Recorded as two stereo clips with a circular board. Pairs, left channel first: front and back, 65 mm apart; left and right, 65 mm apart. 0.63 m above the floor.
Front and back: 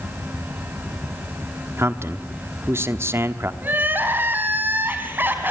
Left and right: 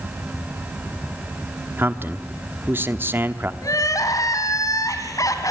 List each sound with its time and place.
1.8 s a man speaking: 140° right, 1.0 m
3.6 s crying: 120° left, 2.5 m